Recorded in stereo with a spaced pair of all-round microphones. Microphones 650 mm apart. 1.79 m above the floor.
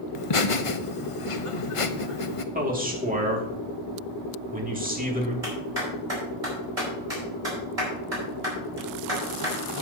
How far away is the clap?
About 5 m.